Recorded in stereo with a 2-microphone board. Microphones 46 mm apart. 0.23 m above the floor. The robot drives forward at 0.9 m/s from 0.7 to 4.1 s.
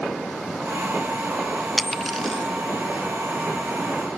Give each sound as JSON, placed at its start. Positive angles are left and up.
{"t": 1.8, "sound": "a dropped coin", "side_deg": 10}